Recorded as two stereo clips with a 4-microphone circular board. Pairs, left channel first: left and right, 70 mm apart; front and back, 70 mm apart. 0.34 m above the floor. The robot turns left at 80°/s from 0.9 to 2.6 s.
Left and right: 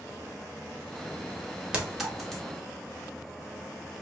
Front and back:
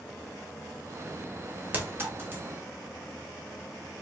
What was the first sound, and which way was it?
A clink, 150° right.